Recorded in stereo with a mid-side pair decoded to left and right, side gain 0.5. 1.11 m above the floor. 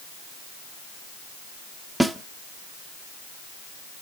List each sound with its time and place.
2.0 s a snare drum: 10° right, 1.1 m